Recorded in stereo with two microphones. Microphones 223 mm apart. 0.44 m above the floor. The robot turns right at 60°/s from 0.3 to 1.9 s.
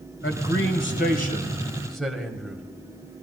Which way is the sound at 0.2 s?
85° left.